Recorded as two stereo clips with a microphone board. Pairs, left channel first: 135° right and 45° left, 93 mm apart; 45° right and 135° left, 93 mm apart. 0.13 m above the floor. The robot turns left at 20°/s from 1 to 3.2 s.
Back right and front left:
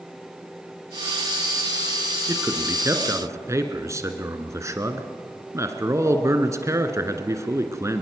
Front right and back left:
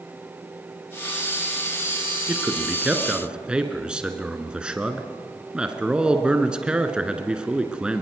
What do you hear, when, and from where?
2.3 s a man speaking: 80° left, 1.6 m; by 8.0 s 65° left, 1.6 m